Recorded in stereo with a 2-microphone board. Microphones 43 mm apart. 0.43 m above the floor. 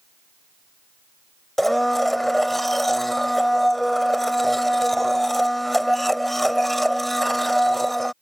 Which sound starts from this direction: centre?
A blender, at 1.6 s.